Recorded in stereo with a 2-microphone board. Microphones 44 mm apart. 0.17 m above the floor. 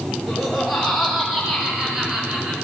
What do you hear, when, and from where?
0.3 s laughter: 5° right (ahead or behind), 3 m; by 2.5 s 25° right (ahead or behind), 2 m